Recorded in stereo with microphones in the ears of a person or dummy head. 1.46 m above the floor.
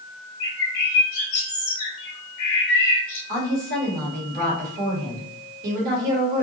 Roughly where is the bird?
Left.